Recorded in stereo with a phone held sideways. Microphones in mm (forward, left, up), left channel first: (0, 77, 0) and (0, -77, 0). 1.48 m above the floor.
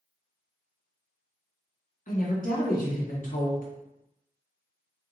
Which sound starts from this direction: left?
A woman speaking, at 2.1 s.